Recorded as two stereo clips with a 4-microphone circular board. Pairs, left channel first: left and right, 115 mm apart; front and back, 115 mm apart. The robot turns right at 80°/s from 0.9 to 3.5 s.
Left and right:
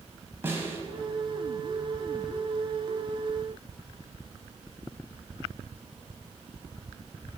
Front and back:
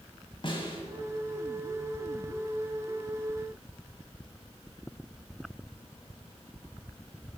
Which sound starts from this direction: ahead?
A snare drum, at 0.4 s.